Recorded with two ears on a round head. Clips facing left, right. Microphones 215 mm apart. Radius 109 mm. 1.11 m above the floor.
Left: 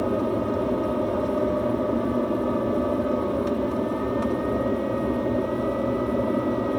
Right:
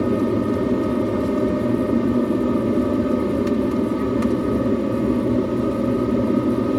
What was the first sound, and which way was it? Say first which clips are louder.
An aircraft: right 5 dB; 35° right (ahead or behind).